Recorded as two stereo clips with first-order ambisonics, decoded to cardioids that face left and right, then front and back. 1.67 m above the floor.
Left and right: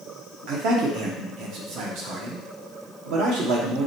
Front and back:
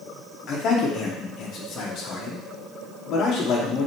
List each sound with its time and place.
0.5 s a man speaking: 55° right, 0.9 m